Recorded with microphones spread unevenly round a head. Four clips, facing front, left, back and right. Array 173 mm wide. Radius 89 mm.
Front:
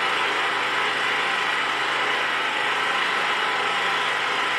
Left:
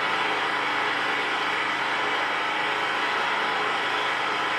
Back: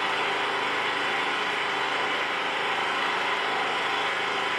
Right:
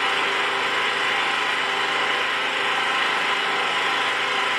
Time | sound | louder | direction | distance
0.0 | an engine running | right 2 dB, front 3 dB | 60° right | 1.3 m